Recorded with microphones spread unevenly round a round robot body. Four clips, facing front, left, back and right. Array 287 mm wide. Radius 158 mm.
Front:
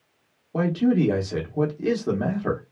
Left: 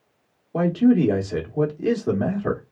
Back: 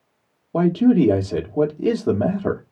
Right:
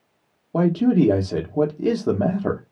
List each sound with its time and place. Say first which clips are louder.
0.5 s a man speaking: even, back 5 dB; 145° right, 0.8 m